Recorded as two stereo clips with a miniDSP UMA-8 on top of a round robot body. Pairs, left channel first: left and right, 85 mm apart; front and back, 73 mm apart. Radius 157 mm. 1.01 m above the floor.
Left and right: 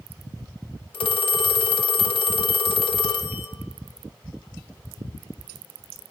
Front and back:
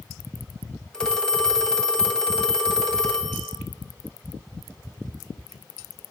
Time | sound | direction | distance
0.9 | a phone ringing | 80° left | 0.9 m